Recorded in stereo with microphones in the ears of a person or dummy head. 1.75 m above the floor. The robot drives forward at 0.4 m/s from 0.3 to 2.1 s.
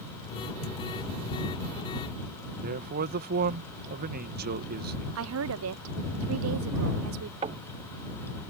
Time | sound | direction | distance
2.6 | a man speaking | 40° right (ahead or behind) | ?
5.2 | a woman speaking | 70° right (ahead or behind) | ?
7.4 | knocking | 35° right (ahead or behind) | ?